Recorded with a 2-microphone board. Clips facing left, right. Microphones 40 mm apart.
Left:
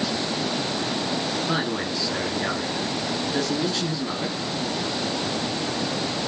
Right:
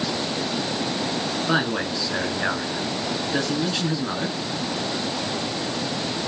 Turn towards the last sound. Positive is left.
turn(degrees=-80)